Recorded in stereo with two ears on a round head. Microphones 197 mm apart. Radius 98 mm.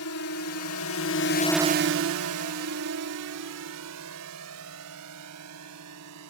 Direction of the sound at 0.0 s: 80° left.